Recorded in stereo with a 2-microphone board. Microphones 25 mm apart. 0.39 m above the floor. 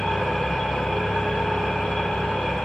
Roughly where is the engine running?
Left.